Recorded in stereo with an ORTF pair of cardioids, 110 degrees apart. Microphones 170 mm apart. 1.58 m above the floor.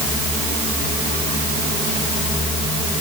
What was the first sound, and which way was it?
Only background noise.